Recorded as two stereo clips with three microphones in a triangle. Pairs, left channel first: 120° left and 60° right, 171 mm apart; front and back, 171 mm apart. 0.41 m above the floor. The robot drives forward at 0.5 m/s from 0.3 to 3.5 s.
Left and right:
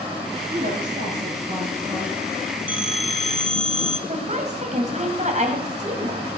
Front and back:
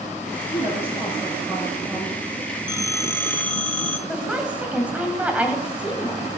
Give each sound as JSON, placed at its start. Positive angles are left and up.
{"t": 0.5, "sound": "a woman speaking", "azimuth_deg": -100, "distance_m": 7.0}
{"t": 2.7, "sound": "a phone ringing", "azimuth_deg": 65, "distance_m": 1.4}
{"t": 4.1, "sound": "a woman speaking", "azimuth_deg": -100, "distance_m": 2.5}